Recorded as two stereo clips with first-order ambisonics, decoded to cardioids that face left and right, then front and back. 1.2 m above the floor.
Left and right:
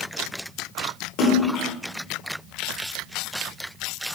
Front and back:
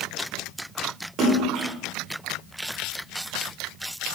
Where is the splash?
125° left, 0.8 m.